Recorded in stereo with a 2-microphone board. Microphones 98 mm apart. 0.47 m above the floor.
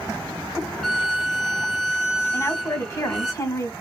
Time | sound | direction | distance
0.8 | a violin | centre (ahead or behind) | 1.4 m
2.3 | a woman speaking | 30° left (ahead or behind) | 2.5 m